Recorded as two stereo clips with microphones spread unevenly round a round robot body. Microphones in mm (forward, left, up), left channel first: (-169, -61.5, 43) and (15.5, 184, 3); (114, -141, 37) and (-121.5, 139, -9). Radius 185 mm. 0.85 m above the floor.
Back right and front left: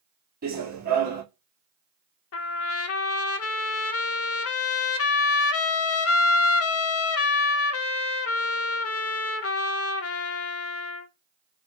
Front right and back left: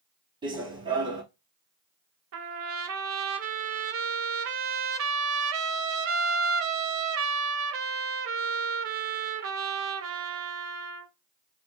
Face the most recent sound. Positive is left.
turn(degrees=-175)